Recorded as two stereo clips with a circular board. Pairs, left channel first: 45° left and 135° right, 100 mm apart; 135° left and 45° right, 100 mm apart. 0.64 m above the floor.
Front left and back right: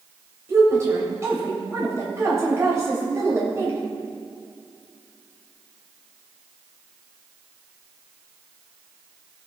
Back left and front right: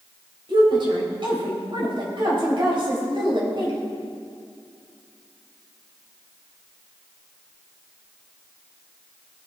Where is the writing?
No writing in this recording.